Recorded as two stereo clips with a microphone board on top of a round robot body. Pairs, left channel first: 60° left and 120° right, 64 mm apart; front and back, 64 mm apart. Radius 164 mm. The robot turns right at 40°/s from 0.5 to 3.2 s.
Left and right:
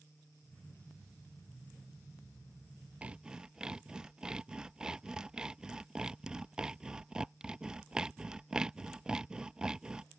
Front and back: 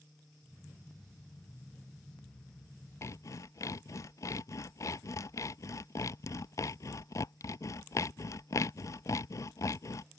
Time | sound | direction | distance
3.0 | sawing | 50° right | ?